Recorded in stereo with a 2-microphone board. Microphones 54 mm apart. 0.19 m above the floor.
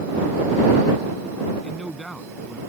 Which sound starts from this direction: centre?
A man speaking, at 1.6 s.